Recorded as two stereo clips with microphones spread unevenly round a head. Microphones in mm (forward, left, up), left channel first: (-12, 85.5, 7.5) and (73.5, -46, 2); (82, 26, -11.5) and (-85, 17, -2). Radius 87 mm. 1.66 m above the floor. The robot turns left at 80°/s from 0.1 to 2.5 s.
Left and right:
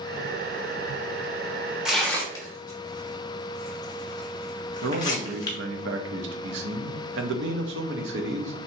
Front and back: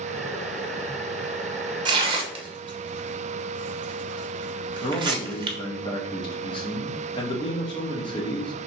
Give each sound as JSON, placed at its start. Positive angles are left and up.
{"t": 1.9, "sound": "tearing paper", "azimuth_deg": -145, "distance_m": 0.8}
{"t": 4.8, "sound": "a man speaking", "azimuth_deg": -60, "distance_m": 0.7}